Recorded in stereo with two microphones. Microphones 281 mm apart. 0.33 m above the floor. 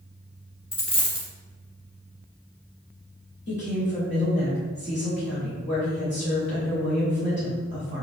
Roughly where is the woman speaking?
Left.